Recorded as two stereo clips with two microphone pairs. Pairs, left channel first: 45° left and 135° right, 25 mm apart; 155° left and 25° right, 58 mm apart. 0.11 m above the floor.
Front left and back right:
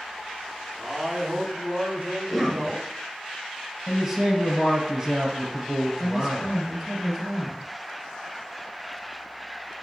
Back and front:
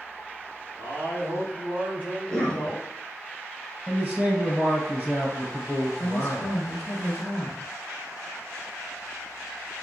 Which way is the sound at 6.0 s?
175° right.